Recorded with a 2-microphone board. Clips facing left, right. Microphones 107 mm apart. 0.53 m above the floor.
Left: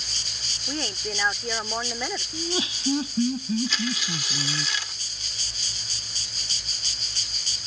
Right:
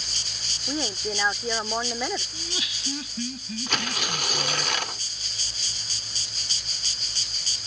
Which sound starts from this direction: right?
Tearing paper, at 3.7 s.